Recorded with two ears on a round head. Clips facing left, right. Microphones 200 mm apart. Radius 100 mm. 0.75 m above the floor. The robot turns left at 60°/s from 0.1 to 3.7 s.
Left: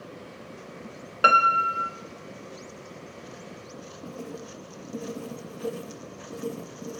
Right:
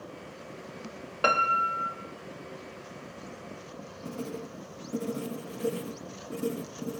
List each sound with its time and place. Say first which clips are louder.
1.2 s a piano: left 2 dB; 165° left, 1.0 m; by 1.9 s 130° left, 1.0 m
4.0 s writing: right 2 dB; 20° right (ahead or behind), 0.8 m